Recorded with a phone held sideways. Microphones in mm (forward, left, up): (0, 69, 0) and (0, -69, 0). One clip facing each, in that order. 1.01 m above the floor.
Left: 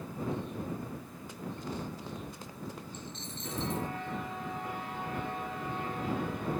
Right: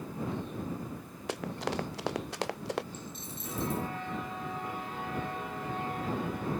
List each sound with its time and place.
1.3 s running footsteps: 80° right; by 2.8 s 75° right (ahead or behind)
2.9 s a dropped coin: 10° right (ahead or behind)